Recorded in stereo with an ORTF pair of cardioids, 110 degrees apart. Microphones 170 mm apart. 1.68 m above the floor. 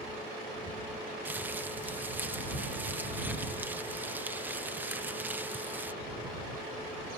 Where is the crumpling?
10° right.